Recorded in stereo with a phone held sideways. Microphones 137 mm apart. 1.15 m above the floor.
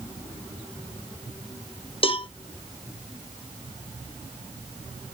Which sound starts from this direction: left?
A cowbell, at 2.0 s.